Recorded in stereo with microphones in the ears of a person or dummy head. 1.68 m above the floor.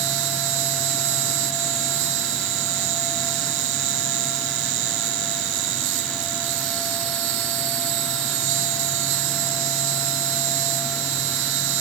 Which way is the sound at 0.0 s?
75° right (ahead or behind).